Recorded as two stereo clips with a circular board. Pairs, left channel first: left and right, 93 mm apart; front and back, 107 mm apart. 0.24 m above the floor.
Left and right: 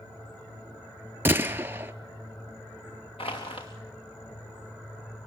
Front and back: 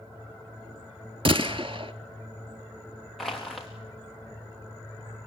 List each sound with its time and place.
1.2 s a gunshot: 155° right, 0.8 m
3.2 s crushing: 90° left, 4 m